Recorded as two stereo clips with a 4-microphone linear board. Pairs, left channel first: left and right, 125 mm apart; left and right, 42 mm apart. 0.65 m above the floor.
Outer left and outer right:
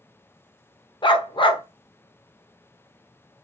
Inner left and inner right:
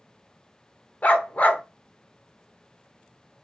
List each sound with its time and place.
1.0 s a dog barking: 45° left (ahead or behind), 0.6 m